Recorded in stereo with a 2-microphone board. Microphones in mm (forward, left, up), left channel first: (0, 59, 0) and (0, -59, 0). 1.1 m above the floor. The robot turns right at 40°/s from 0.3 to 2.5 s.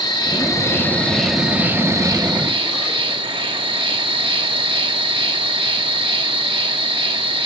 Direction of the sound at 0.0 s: 140° left.